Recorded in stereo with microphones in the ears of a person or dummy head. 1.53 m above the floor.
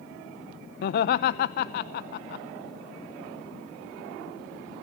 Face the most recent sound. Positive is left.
turn(degrees=60)  # may be behind; listen again after turning